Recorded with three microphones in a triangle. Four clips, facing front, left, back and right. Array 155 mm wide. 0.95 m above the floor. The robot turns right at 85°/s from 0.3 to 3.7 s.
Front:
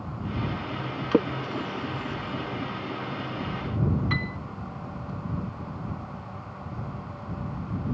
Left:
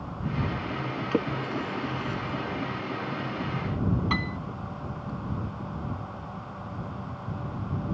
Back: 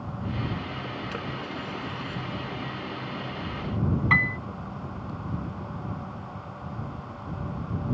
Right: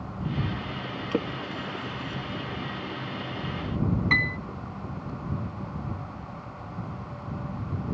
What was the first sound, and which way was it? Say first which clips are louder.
A splash: left 2 dB, front 9 dB; 5° right.